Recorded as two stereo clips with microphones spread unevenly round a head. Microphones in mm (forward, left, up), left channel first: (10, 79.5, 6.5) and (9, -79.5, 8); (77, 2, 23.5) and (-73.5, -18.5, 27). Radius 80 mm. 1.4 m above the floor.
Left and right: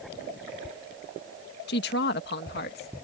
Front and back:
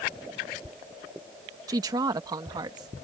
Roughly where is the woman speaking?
Behind left.